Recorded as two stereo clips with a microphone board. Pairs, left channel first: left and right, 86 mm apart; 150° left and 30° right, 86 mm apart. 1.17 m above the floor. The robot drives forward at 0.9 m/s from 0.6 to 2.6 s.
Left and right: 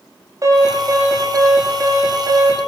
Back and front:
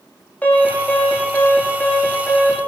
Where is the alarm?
140° right, 9 m; by 2.6 s 145° right, 10 m.